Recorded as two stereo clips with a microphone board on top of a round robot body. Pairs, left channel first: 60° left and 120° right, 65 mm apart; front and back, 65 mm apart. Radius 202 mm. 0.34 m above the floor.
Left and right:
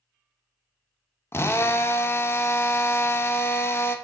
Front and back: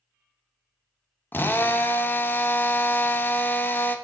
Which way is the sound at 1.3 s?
40° left.